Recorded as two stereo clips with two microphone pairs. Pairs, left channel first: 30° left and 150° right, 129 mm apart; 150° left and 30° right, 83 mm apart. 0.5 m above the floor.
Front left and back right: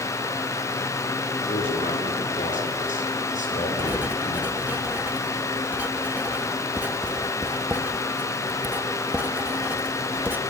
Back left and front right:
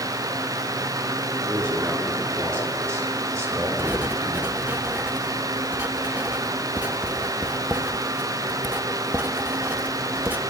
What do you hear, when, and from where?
1.5 s a man speaking: 30° left, 7 m; by 4.8 s 20° left, 9 m
3.8 s writing: 85° right, 1.1 m